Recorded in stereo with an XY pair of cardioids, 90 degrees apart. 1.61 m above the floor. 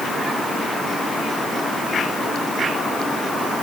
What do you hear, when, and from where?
Only background noise.